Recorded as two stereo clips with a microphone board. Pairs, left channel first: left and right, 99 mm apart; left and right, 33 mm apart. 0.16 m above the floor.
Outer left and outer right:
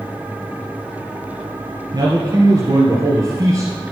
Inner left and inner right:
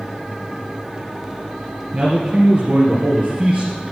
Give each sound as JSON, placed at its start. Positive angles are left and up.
{"t": 1.9, "sound": "a man speaking", "side_deg": -35, "distance_m": 3.0}